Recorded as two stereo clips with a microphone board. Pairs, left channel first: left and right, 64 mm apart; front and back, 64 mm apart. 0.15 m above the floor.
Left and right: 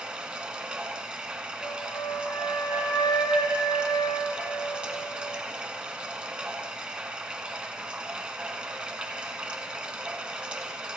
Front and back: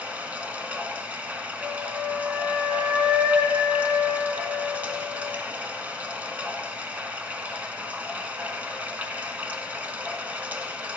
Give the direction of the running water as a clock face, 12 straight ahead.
5 o'clock.